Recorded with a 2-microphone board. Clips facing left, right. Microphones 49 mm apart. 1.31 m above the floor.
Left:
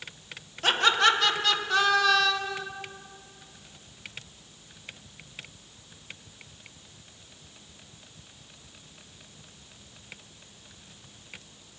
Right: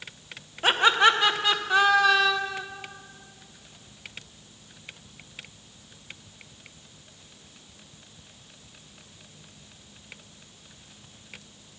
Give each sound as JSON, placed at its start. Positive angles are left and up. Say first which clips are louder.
{"t": 0.6, "sound": "laughter", "louder": "right 3 dB", "side_deg": -20, "distance_m": 1.0}